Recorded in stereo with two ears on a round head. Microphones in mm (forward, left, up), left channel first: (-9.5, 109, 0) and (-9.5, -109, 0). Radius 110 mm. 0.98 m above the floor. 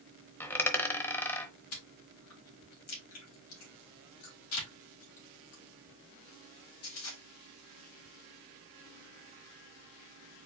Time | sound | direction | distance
0.4 | a dropped coin | 10° left (ahead or behind) | 0.8 m
1.7 | chewing | 65° left (ahead or behind) | 2 m